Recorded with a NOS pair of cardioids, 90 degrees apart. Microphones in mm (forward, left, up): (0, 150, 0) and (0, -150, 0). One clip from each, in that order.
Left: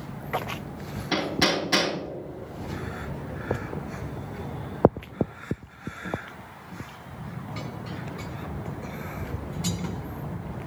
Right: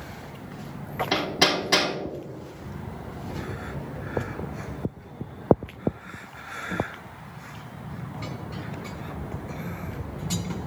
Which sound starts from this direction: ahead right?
Hammering, at 1.1 s.